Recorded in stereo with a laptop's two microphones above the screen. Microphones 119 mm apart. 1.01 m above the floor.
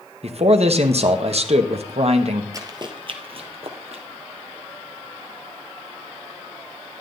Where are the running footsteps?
30° right (ahead or behind), 1.2 m; by 4.0 s 60° right (ahead or behind), 2 m.